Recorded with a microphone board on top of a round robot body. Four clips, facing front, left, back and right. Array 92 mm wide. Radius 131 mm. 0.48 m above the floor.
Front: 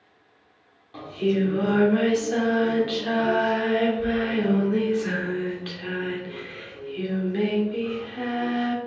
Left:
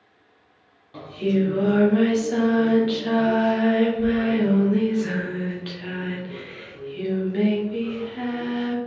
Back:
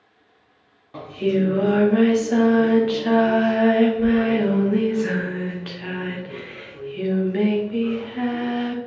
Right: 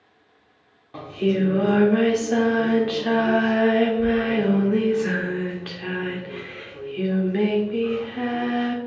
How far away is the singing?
About 1.3 m.